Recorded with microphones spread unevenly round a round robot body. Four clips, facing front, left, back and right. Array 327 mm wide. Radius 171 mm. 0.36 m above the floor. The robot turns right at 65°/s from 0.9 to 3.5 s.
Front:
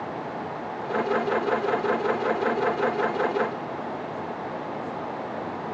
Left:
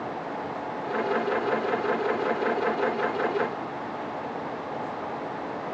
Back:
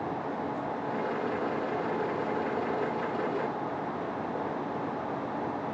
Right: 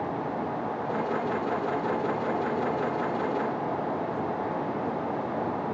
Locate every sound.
Only background noise.